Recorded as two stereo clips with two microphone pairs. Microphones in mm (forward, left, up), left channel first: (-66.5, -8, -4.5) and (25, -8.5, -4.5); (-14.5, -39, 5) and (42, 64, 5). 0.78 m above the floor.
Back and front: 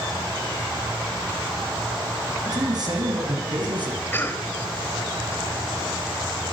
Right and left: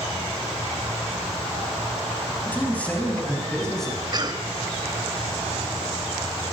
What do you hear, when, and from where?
2.5 s a man speaking: 45° right, 7 m; by 4.0 s 30° right, 7 m
4.1 s a cough: 115° left, 3 m